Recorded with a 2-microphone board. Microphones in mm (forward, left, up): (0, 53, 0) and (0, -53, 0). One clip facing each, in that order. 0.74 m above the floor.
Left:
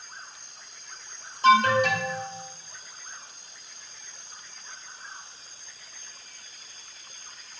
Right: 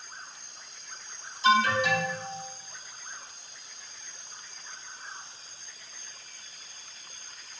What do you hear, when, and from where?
1.4 s an alarm: 55° left (ahead or behind), 2.5 m